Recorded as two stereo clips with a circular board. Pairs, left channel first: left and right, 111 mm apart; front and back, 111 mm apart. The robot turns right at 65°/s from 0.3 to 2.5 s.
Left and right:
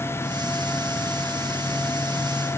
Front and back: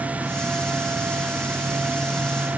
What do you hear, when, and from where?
Only background noise.